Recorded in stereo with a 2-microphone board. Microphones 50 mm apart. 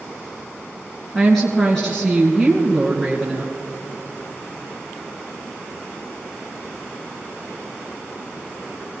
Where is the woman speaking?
5° left (ahead or behind), 2.5 m.